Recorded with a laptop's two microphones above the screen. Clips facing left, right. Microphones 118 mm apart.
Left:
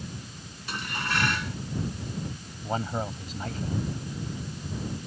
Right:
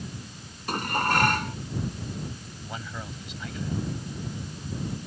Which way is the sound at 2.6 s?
40° left (ahead or behind).